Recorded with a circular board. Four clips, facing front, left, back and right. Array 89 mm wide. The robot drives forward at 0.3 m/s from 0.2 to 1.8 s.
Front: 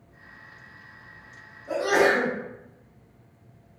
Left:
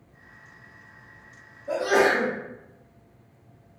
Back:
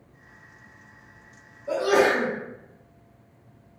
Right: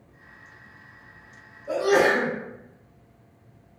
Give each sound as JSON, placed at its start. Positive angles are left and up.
{"t": 1.7, "sound": "a sneeze", "azimuth_deg": -175, "distance_m": 1.5}